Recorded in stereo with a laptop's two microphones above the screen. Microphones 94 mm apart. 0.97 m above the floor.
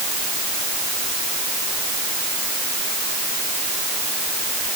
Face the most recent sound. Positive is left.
No sound to turn to.